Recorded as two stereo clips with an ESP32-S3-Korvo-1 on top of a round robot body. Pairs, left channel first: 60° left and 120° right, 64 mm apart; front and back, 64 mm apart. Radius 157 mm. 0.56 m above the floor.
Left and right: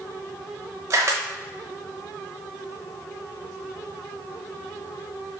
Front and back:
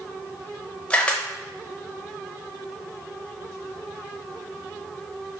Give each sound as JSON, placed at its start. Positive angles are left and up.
{"t": 0.9, "sound": "a camera shutter", "azimuth_deg": -75, "distance_m": 0.7}